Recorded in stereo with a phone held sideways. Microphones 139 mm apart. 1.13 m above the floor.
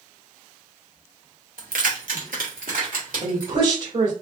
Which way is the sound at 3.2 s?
60° right (ahead or behind).